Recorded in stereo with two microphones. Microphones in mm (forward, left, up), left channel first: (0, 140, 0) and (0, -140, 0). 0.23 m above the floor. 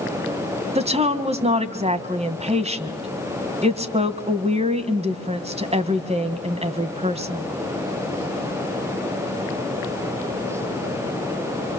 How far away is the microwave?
I don't hear a microwave.